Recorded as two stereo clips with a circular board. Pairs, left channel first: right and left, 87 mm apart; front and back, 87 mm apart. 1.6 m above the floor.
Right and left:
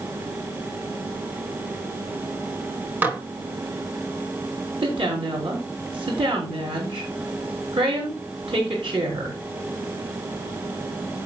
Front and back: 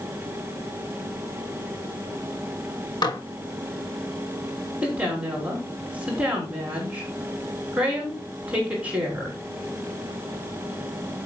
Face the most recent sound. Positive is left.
turn(degrees=105)